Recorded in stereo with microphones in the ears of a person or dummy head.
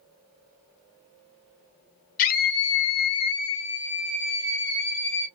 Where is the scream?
40° left (ahead or behind), 1.0 m; by 5.3 s 20° left (ahead or behind), 1.7 m.